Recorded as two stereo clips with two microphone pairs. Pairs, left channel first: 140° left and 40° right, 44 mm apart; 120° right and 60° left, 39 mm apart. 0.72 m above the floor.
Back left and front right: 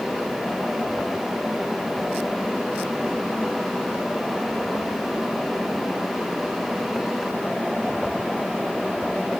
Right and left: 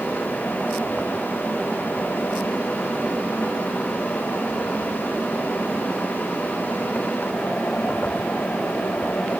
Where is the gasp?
No gasp in this recording.